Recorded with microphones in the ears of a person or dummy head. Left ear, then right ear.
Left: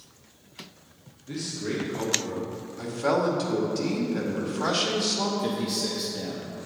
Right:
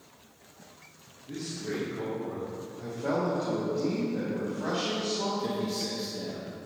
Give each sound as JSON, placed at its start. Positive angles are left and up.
{"t": 1.3, "sound": "a man speaking", "side_deg": 35, "distance_m": 1.9}
{"t": 2.8, "sound": "a man speaking", "side_deg": 60, "distance_m": 2.5}
{"t": 5.4, "sound": "a man speaking", "side_deg": 15, "distance_m": 0.9}